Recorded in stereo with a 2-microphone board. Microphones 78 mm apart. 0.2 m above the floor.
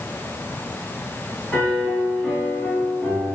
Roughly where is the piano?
Centre.